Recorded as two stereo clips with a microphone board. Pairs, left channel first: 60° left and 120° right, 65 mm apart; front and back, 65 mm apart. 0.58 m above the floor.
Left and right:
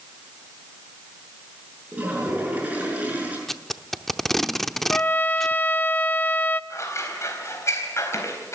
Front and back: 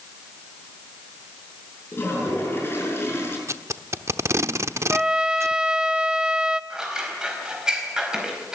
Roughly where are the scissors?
Left.